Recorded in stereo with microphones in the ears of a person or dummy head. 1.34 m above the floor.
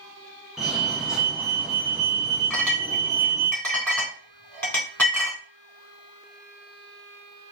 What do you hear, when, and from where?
0.6 s a fire alarm: 5° right (ahead or behind), 1.4 m
2.5 s a clink: 5° left (ahead or behind), 3 m